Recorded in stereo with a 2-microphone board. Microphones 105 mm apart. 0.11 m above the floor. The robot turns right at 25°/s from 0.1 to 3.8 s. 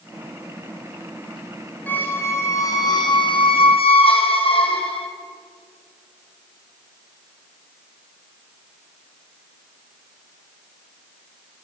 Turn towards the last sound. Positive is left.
turn(degrees=65)